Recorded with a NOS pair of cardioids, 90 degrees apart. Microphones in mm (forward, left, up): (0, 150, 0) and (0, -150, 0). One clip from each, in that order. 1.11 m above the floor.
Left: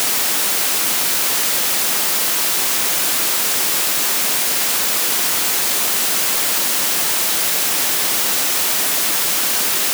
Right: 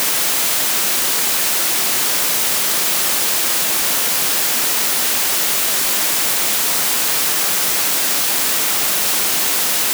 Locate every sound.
Only background noise.